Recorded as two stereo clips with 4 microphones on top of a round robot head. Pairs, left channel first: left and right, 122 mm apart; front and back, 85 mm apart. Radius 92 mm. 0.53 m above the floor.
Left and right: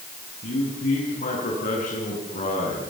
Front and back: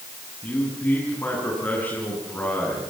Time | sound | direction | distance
0.4 | a man speaking | 75° left | 6.5 m